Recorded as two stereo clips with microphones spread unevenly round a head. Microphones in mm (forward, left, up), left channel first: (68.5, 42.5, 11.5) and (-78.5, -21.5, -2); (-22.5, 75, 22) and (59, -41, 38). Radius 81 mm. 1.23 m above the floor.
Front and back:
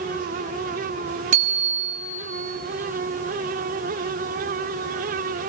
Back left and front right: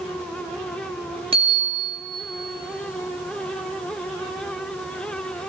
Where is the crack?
No crack in this recording.